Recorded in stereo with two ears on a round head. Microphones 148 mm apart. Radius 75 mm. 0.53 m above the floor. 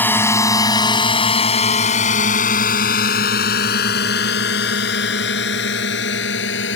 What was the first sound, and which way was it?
A drone, 10° left (ahead or behind).